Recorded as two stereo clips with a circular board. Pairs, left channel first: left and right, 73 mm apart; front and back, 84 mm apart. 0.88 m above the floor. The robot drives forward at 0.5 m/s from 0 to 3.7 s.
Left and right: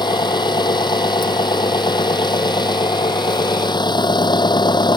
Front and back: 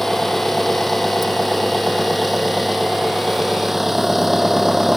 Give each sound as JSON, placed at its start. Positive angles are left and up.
{"t": 0.0, "sound": "an engine running", "azimuth_deg": 85}